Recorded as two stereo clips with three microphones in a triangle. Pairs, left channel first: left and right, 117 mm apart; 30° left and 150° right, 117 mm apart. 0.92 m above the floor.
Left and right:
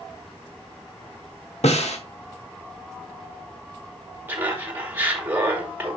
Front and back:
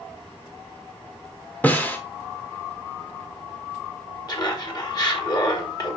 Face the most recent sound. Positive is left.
turn(degrees=-20)